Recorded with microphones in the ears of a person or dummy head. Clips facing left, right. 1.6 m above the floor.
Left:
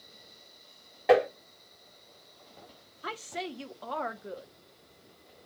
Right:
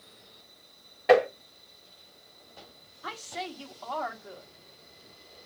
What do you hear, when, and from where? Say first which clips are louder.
1.1 s tapping: right 2 dB; 10° left (ahead or behind), 2.5 m
3.0 s a woman speaking: left 1 dB; 35° left (ahead or behind), 0.7 m